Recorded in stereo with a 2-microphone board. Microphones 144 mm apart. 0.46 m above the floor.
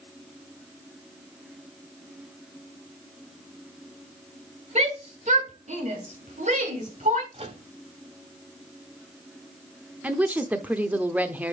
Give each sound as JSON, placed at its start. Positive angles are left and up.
{"t": 4.8, "sound": "a shout", "side_deg": -50, "distance_m": 1.5}
{"t": 7.3, "sound": "a microwave", "side_deg": -45, "distance_m": 1.4}
{"t": 10.0, "sound": "a woman speaking", "side_deg": -10, "distance_m": 0.8}